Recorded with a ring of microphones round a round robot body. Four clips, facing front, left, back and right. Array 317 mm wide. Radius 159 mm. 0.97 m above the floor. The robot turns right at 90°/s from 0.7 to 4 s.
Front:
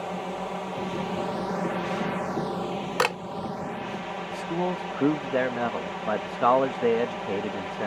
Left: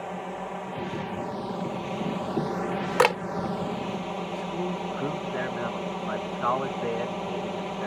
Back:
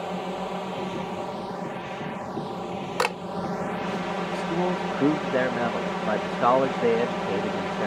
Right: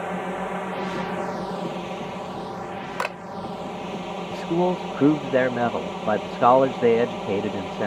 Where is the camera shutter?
80° left; by 3.2 s 95° left.